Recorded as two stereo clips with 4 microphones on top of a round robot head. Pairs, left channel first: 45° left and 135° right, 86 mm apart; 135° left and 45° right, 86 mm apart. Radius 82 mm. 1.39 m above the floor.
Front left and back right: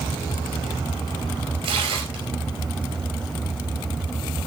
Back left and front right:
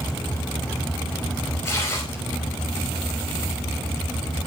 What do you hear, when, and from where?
1.6 s tearing paper: 160° right, 4.5 m